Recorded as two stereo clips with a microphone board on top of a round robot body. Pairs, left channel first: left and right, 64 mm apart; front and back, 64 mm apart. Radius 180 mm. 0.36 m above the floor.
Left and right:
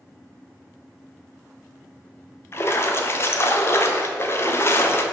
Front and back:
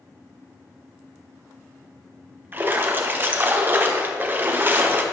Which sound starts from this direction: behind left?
A splash, at 2.5 s.